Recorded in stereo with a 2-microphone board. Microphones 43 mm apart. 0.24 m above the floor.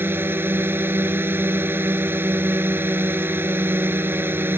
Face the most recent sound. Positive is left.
turn(degrees=-55)  # may be behind; listen again after turning